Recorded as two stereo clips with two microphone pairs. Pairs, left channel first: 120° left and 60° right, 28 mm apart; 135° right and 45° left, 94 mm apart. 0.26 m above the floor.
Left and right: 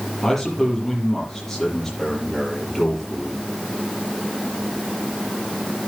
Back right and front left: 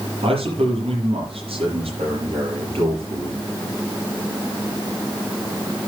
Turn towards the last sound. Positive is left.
turn(degrees=40)